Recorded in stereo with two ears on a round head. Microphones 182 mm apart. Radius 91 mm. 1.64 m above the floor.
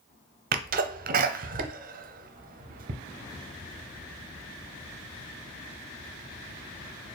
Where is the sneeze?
45° right (ahead or behind), 0.6 m.